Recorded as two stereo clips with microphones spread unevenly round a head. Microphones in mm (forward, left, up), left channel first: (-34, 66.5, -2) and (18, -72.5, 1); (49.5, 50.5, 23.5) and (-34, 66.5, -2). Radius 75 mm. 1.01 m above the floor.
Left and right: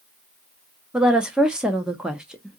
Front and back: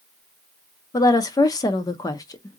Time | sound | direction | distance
0.9 | a woman speaking | 15° left | 0.6 m